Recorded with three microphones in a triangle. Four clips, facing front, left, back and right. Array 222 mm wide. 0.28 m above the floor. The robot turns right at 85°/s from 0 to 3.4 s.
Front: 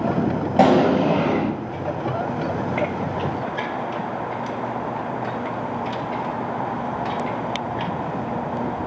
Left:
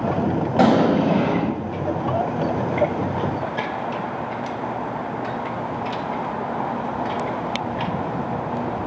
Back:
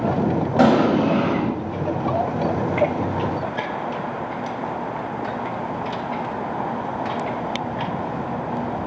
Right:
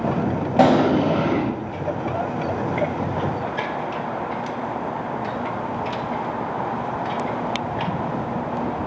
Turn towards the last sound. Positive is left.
turn(degrees=-155)